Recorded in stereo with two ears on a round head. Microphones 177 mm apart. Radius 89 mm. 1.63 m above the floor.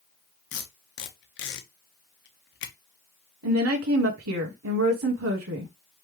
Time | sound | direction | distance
0.5 | tape being pulled | 60° left (ahead or behind) | 1.0 m
3.4 | a woman speaking | 85° right | 1.2 m